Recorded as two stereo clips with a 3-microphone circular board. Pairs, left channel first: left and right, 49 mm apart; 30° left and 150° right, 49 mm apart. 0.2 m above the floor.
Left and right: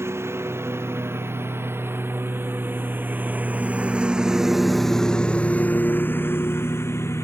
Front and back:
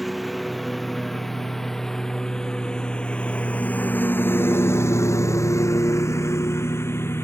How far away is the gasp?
No gasp in this recording.